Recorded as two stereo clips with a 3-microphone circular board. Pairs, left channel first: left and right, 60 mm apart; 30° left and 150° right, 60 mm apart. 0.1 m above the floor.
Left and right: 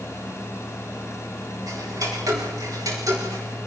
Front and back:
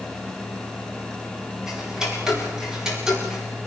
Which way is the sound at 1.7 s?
70° right.